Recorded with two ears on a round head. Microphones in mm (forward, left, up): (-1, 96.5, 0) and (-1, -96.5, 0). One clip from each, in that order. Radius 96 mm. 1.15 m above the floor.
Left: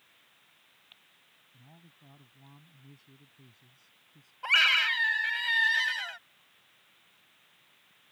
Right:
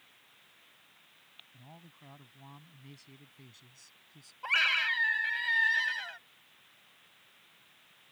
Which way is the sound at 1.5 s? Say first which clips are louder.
Right 3 dB; 55° right (ahead or behind).